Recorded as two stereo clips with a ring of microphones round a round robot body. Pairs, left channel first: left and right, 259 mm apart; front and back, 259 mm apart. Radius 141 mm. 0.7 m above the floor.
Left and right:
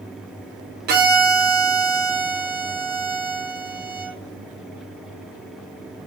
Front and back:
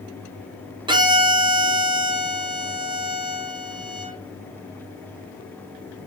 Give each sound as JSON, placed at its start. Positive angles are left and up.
{"t": 0.9, "sound": "a violin", "azimuth_deg": -115, "distance_m": 0.5}